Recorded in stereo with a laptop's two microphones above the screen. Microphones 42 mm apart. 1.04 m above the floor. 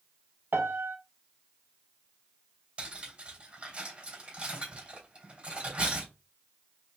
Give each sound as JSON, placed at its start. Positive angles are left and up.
{"t": 0.5, "sound": "a piano", "side_deg": -65, "distance_m": 0.7}
{"t": 2.8, "sound": "cutlery clinking", "side_deg": -25, "distance_m": 3.0}